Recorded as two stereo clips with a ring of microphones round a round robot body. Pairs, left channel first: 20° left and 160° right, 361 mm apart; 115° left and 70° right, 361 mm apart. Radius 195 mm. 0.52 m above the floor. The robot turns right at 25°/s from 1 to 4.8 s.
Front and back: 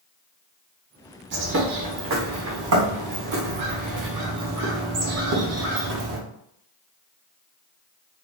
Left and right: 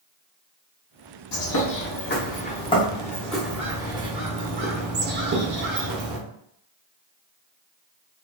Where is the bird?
150° left, 0.9 m; by 6.2 s 120° right, 0.9 m.